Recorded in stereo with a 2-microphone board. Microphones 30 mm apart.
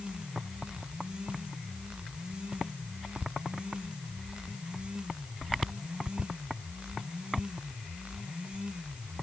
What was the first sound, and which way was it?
Only background noise.